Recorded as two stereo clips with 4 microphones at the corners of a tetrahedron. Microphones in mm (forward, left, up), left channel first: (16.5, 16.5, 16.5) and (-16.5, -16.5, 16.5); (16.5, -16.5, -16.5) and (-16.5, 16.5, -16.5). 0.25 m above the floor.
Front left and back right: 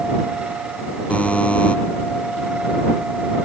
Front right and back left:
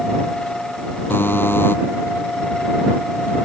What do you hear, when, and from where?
1.1 s a buzzer: 15° right